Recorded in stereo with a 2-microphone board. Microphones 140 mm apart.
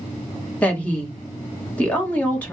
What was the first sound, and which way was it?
A woman speaking, 10° left (ahead or behind).